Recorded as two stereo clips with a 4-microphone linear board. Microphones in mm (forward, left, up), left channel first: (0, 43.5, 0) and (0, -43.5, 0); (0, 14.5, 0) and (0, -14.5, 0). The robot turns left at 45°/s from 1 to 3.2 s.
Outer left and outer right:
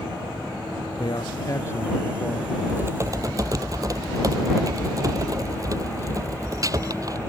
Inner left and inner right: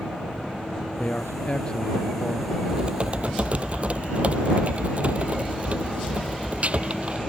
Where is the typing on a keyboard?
20° right (ahead or behind); by 7.2 s 45° right (ahead or behind).